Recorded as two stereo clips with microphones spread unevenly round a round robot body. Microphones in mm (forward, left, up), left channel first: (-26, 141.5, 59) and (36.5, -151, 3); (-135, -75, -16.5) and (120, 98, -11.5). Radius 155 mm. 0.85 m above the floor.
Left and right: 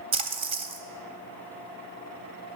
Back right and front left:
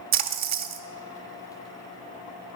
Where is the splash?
Straight ahead, 0.7 m.